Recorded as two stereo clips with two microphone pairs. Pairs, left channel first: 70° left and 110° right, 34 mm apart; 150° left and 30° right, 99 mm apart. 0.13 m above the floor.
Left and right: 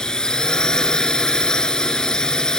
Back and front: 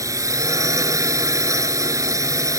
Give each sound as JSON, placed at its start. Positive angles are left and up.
{"t": 0.0, "sound": "a drone", "azimuth_deg": 15}